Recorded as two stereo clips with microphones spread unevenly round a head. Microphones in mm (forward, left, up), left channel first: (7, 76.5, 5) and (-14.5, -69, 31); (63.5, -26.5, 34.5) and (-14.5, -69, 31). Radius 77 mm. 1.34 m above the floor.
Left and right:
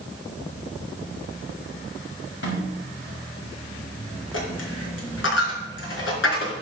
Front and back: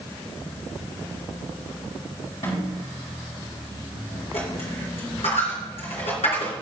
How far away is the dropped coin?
About 4 m.